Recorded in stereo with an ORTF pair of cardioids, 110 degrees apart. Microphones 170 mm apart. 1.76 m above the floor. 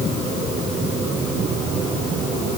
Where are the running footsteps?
I don't hear running footsteps.